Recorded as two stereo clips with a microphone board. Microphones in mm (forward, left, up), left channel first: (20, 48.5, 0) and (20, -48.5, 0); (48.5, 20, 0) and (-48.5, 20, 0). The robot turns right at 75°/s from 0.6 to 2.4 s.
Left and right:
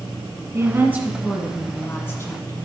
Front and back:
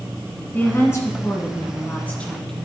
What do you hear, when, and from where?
0.5 s a woman speaking: 50° right, 1.3 m; by 2.6 s 85° left, 1.3 m